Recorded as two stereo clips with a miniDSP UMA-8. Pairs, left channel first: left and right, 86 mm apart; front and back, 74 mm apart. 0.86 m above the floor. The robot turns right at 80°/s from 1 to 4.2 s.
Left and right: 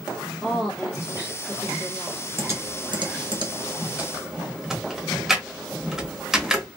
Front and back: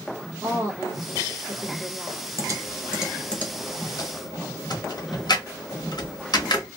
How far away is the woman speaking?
About 1.0 m.